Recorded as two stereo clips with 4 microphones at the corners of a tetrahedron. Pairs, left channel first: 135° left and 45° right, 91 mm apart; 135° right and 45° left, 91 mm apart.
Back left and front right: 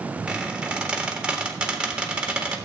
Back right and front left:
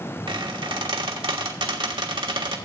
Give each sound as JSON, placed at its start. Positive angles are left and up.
{"t": 0.3, "sound": "a squeak", "azimuth_deg": 35, "distance_m": 1.4}